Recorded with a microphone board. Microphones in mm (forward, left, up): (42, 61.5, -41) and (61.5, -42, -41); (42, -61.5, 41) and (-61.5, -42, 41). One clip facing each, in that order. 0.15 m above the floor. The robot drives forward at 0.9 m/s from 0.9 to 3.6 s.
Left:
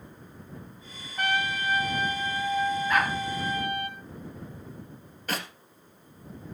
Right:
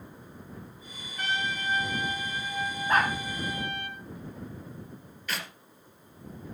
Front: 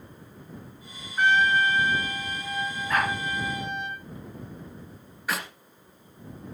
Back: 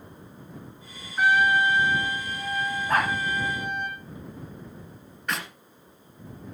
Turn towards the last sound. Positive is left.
turn(degrees=75)